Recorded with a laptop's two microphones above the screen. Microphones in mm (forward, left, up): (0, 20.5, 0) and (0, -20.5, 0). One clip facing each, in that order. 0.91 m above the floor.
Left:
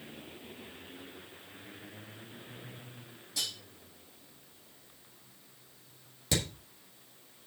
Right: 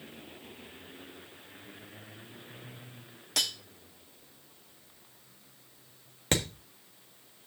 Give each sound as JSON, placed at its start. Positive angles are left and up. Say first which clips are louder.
{"t": 3.4, "sound": "cutlery clinking", "louder": "right 6 dB", "side_deg": -80, "distance_m": 1.1}
{"t": 6.3, "sound": "hammering", "louder": "right 3 dB", "side_deg": -50, "distance_m": 1.4}